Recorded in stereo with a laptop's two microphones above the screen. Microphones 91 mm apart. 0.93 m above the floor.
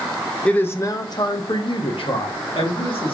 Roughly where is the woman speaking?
Centre.